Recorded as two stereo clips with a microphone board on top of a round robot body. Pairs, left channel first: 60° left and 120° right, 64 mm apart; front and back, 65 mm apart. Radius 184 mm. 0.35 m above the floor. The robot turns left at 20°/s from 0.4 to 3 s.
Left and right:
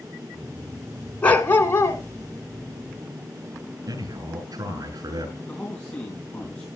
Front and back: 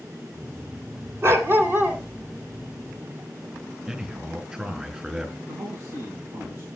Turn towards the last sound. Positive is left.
turn(degrees=130)